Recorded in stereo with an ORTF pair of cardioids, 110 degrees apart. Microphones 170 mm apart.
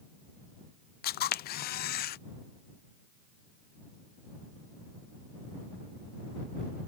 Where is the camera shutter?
60° left.